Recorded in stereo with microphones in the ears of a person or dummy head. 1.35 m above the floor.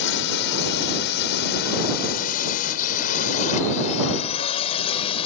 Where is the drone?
70° left (ahead or behind); by 5.3 s 35° left (ahead or behind).